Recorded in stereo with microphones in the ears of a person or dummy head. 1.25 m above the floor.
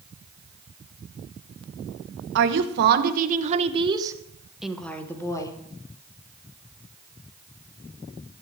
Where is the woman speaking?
65° right (ahead or behind), 1.5 m; by 5.6 s 20° left (ahead or behind), 1.5 m.